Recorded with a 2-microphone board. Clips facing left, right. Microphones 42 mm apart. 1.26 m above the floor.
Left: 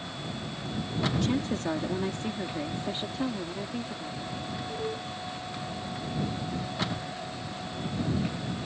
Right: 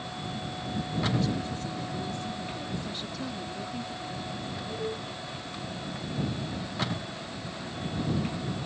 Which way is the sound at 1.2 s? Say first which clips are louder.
Left 3 dB; 70° left (ahead or behind).